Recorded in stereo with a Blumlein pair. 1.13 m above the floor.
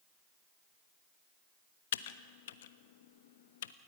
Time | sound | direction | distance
1.9 | typing on a keyboard | 60° left | 1.0 m